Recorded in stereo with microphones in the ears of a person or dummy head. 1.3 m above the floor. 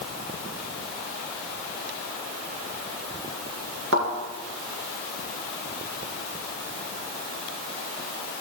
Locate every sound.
3.9 s a thud: 65° right (ahead or behind), 3 m